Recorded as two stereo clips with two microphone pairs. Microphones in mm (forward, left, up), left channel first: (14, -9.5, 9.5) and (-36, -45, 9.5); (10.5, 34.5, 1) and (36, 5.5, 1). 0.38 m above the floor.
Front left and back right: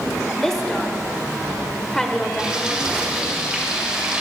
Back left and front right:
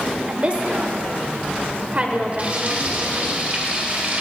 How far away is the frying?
About 1.8 m.